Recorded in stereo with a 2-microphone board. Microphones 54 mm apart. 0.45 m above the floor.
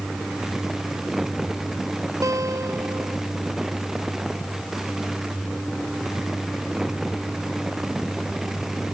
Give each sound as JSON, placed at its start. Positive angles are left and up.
{"t": 2.2, "sound": "a guitar", "side_deg": -85}